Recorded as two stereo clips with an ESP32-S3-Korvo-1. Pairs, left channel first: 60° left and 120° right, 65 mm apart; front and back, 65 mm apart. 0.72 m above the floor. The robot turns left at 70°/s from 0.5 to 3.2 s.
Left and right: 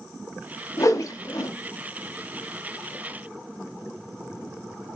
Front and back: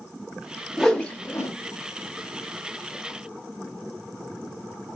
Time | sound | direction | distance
0.8 | a whoosh | 90° left | 0.5 m